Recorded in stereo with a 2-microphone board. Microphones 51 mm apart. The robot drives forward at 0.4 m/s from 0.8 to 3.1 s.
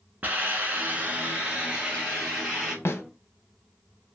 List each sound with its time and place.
0.2 s a hiss: 35° right (ahead or behind), 0.6 m; by 2.8 s 15° right (ahead or behind), 1.4 m
2.9 s a snare drum: 60° left (ahead or behind), 0.6 m; by 3.0 s 55° left (ahead or behind), 0.6 m